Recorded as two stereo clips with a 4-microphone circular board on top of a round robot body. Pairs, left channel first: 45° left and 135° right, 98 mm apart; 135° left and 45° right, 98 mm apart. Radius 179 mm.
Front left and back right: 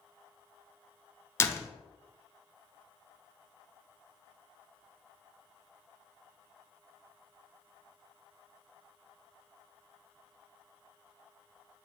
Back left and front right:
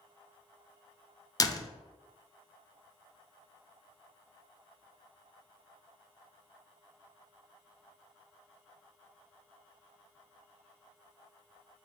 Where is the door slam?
100° left, 0.7 m.